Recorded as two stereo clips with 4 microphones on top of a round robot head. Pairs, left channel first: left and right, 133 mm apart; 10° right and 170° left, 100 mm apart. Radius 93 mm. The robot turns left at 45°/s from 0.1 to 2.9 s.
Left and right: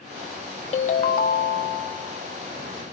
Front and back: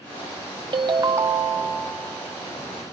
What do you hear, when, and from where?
0.7 s a ringtone: 130° left, 0.7 m; by 1.9 s 75° left, 0.7 m